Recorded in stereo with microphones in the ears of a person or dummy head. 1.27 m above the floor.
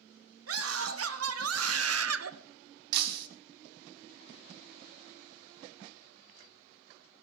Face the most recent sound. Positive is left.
turn(degrees=-60)  # may be behind; listen again after turning